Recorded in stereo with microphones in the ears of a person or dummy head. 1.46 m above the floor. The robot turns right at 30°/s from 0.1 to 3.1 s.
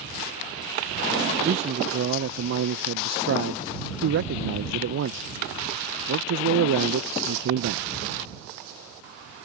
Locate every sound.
1.4 s a man speaking: 145° right; by 7.8 s 100° right